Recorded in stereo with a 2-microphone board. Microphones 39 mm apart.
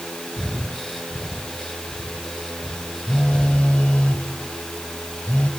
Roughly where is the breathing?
Centre.